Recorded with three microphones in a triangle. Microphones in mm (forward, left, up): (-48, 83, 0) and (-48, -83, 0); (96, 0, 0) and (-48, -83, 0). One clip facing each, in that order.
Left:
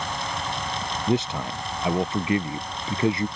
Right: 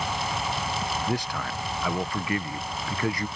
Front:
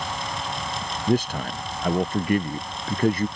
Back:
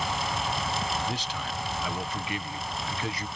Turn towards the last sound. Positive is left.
turn(degrees=30)